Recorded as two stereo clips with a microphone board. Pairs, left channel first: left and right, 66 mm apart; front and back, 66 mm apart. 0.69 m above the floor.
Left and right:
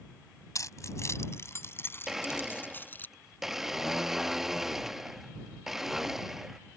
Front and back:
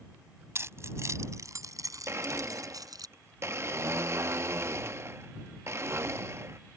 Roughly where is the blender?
Behind.